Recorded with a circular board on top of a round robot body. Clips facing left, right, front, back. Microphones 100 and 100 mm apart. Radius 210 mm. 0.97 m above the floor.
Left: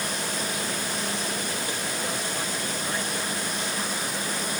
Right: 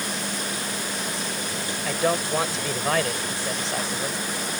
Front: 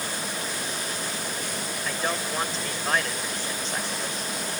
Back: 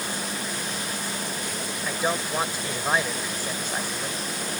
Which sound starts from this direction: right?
A man speaking, at 1.9 s.